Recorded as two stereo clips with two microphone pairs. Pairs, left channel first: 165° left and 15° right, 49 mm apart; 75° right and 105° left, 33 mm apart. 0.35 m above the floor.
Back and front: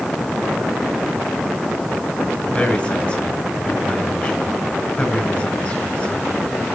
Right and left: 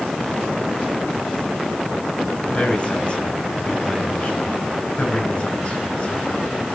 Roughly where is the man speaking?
Behind right.